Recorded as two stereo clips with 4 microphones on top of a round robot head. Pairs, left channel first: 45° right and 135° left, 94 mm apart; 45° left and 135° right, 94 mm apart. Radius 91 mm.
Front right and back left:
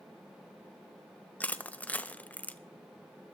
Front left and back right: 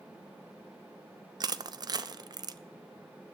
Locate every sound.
1.4 s crushing: 115° right, 0.6 m